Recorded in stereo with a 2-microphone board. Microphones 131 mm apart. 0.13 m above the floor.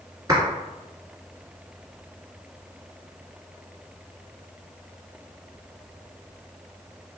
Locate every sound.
0.3 s a clap: 30° right (ahead or behind), 1.4 m